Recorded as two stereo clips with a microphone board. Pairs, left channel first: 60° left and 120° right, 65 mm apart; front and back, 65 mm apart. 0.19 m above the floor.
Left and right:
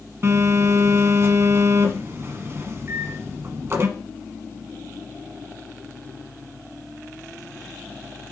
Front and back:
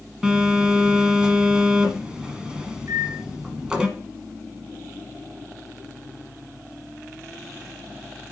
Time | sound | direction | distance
0.2 | a phone buzzing | 110° right | 1.1 m
2.9 | a microwave | 160° right | 2.5 m